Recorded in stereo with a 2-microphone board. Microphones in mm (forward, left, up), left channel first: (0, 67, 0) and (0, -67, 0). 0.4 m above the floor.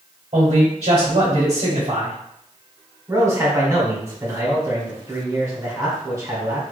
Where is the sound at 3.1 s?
25° right (ahead or behind), 1.3 m.